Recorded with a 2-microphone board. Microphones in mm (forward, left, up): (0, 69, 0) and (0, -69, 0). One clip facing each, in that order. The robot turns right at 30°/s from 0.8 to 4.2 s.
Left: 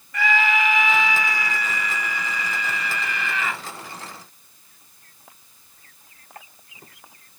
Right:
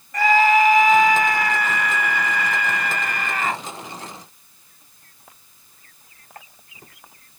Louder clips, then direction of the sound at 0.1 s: Right 6 dB; 130° right.